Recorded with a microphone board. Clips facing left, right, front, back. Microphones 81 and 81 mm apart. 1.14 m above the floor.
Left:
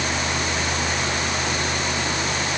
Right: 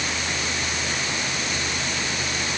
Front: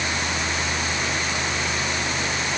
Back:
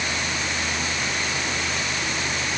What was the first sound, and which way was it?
Only background noise.